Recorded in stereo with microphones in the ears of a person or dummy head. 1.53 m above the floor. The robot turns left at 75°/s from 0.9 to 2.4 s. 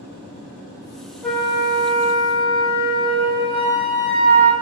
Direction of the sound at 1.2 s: 10° left.